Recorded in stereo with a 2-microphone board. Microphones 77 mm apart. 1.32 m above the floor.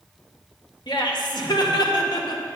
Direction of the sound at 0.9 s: 75° left (ahead or behind).